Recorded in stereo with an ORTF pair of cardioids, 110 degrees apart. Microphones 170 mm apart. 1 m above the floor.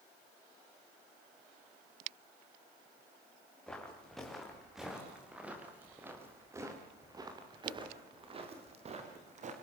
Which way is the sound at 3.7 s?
5° left.